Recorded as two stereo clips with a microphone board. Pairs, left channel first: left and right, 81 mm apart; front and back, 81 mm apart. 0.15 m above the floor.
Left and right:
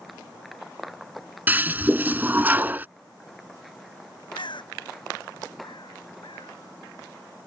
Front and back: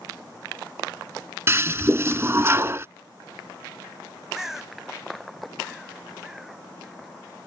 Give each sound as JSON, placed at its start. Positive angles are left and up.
{"t": 1.5, "sound": "a toilet flushing", "azimuth_deg": -145}
{"t": 4.3, "sound": "a bird", "azimuth_deg": 95}